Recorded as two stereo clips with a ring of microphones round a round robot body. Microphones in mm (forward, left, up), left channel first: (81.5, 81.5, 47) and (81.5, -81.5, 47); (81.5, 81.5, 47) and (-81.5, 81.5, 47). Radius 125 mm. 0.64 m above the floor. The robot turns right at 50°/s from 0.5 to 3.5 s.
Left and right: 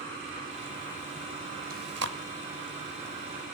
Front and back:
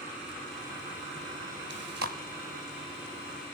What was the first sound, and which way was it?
Chewing, 145° right.